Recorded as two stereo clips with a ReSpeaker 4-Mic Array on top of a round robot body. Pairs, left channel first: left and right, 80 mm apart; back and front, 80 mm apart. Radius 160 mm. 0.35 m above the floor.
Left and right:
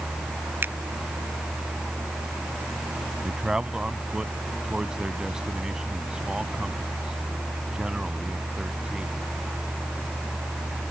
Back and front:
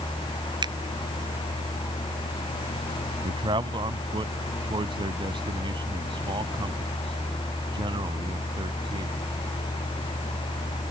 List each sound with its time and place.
0.6 s a finger snap: 25° right
3.2 s a man speaking: 10° right